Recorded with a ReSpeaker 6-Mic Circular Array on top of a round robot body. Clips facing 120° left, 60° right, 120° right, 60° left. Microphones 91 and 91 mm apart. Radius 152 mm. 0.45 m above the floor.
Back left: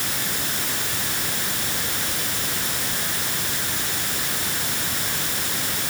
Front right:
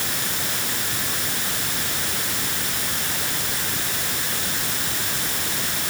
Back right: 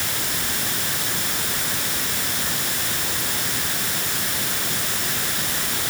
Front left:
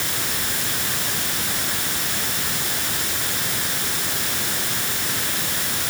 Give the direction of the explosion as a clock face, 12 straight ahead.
I don't hear an explosion.